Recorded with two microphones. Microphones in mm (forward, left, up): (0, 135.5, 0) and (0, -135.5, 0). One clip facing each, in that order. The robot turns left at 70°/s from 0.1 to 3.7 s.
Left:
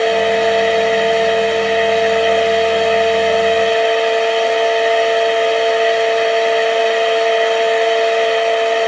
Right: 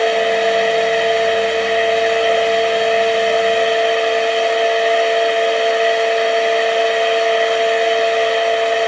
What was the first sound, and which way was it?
Only background noise.